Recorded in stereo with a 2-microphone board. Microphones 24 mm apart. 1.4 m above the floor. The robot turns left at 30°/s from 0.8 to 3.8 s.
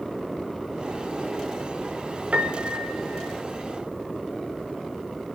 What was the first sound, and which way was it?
A piano, 110° right.